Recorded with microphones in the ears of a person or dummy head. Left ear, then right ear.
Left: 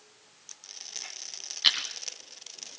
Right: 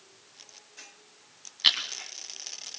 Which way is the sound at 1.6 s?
5° right (ahead or behind).